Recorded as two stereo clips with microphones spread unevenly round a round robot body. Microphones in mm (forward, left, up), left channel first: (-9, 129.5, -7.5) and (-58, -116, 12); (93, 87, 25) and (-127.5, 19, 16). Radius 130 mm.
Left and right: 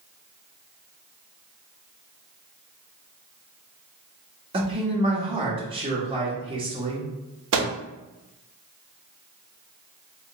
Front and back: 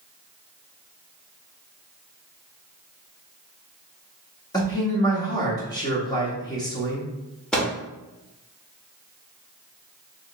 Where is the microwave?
70° right, 0.8 m.